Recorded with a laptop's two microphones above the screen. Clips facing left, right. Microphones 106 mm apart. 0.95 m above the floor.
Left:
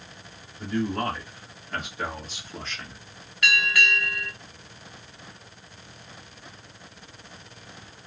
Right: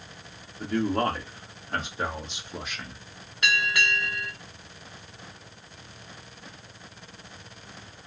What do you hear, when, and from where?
0.6 s a man speaking: 50° right (ahead or behind), 1.8 m; by 3.0 s 5° right (ahead or behind), 1.0 m
3.4 s a bell: 25° right (ahead or behind), 1.4 m